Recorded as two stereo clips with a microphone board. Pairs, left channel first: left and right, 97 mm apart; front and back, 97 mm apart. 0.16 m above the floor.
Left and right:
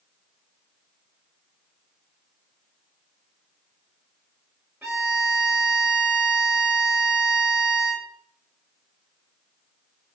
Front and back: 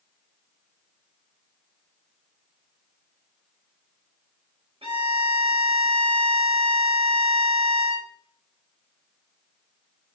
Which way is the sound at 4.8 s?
155° right.